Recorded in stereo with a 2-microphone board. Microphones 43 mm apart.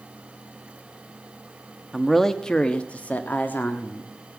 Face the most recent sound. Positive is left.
turn(degrees=55)  # may be behind; listen again after turning